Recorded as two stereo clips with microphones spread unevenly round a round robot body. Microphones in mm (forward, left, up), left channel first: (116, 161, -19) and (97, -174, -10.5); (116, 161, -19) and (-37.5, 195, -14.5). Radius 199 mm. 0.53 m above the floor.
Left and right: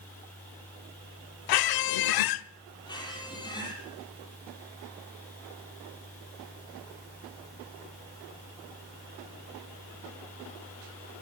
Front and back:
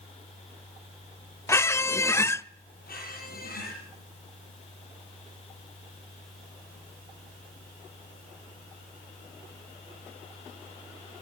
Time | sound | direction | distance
1.5 | a squeak | 65° left | 0.8 m
2.9 | a squeak | 10° left | 8 m